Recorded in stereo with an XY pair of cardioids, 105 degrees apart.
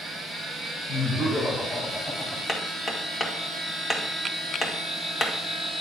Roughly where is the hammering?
Ahead left.